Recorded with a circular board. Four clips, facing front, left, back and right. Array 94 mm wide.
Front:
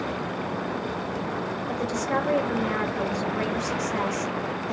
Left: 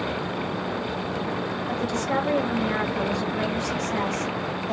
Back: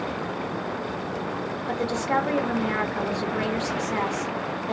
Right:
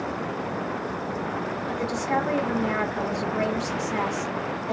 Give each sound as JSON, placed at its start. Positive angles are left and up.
{"t": 1.7, "sound": "a woman speaking", "azimuth_deg": 175, "distance_m": 1.3}